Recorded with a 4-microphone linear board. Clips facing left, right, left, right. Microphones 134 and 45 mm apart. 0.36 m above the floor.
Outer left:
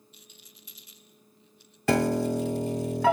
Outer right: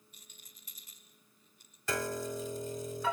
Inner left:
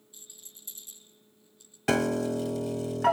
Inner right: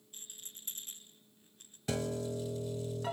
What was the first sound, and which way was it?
A rattle, 45° right (ahead or behind).